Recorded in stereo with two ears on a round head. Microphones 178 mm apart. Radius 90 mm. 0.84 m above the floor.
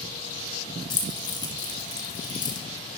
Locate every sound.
0.9 s keys jangling: 20° left (ahead or behind), 1.1 m